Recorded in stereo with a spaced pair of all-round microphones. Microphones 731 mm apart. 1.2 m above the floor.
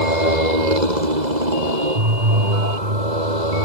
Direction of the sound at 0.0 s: 70° right (ahead or behind).